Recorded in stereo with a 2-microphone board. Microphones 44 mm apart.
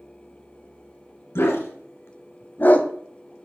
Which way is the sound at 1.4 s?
85° left.